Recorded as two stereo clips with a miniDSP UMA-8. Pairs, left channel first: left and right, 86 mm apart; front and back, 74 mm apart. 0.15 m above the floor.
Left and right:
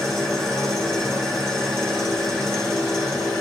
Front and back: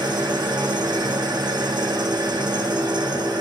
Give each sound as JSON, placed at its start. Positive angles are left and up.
{"t": 0.0, "sound": "an engine running", "azimuth_deg": 170, "distance_m": 3.5}